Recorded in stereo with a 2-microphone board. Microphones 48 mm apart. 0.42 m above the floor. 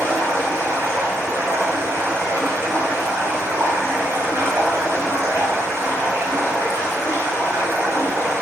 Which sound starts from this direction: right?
Running water, at 0.0 s.